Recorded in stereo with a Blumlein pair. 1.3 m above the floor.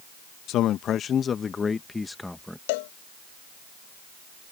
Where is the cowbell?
50° left.